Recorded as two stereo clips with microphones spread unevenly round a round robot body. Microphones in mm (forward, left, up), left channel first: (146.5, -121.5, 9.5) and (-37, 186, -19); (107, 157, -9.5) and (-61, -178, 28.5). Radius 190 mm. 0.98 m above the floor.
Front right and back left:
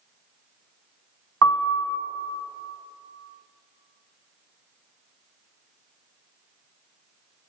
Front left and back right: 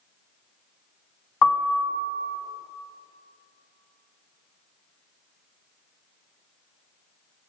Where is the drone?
No drone in this recording.